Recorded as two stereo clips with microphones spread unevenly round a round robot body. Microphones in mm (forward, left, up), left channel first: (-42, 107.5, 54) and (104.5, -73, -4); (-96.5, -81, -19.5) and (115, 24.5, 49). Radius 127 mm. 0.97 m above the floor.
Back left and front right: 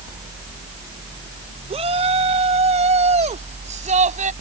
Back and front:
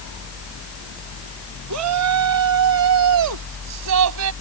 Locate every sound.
1.7 s a shout: 15° left; by 4.3 s 10° left